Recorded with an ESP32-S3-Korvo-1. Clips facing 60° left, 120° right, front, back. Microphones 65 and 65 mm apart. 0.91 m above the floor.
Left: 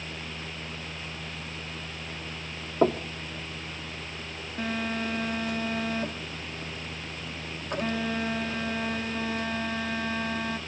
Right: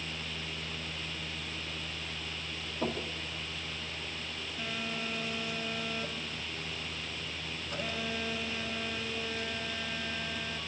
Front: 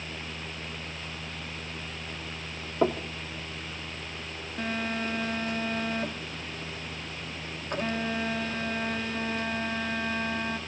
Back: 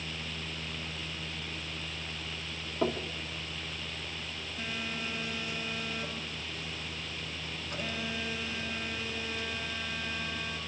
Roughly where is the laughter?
I don't hear laughter.